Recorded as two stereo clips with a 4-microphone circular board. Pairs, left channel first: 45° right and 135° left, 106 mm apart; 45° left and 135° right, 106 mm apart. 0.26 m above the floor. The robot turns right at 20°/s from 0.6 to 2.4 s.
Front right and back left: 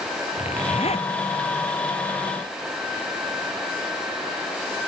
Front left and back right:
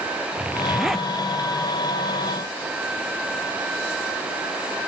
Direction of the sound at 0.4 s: 55° right.